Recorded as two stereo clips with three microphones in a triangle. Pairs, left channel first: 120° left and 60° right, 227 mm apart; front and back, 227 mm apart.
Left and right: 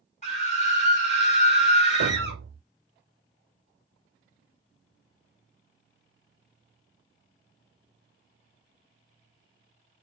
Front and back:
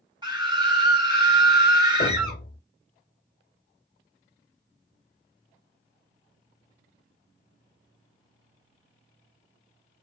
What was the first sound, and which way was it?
A scream, 130° left.